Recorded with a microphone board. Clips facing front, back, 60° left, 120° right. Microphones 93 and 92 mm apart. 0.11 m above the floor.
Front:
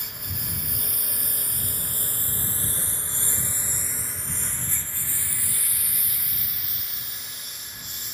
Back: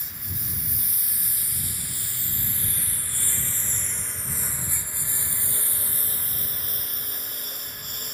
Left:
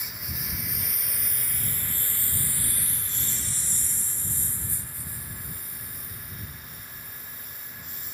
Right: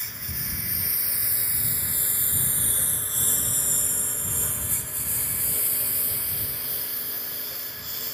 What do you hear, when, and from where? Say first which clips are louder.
0.0 s a lawn mower: front 1 dB, even; 25° right; by 8.1 s 140° right